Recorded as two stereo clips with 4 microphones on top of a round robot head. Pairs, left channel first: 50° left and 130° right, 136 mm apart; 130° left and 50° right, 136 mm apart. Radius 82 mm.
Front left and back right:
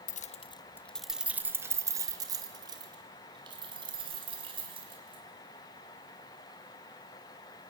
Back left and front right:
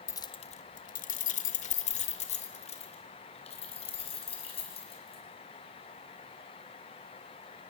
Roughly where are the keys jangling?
Ahead left.